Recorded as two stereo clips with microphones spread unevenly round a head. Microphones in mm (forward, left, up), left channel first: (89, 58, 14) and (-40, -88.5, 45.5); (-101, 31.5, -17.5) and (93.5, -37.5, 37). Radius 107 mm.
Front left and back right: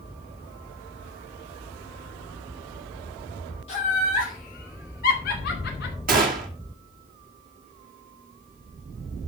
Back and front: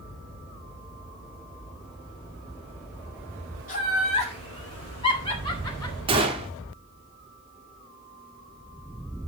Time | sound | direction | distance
3.7 | laughter | 110° left | 3 m
6.1 | a gunshot | 85° right | 2.5 m